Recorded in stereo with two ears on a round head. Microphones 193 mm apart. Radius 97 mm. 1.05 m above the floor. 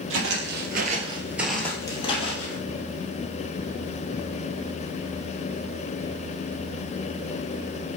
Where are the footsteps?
65° right (ahead or behind), 2 m; by 2.6 s 35° left (ahead or behind), 2.5 m.